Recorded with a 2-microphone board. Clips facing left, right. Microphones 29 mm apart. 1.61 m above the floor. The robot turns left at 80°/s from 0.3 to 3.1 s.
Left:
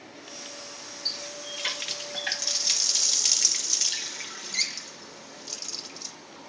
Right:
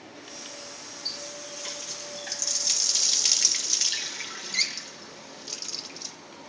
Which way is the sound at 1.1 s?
150° left.